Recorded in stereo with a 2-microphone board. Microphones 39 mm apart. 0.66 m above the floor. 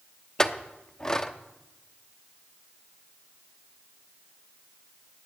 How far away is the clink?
About 0.7 m.